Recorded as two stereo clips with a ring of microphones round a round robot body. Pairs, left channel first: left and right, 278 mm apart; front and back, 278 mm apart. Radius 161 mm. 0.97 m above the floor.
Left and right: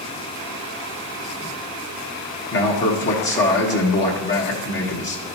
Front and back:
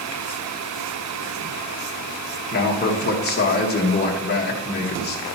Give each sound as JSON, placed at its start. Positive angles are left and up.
{"t": 2.5, "sound": "a man speaking", "azimuth_deg": 50, "distance_m": 1.4}